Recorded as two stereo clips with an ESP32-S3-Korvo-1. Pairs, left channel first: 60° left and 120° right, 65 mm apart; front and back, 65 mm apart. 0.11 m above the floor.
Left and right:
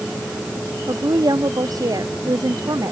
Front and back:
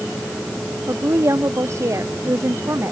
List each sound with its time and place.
0.9 s a woman speaking: 140° right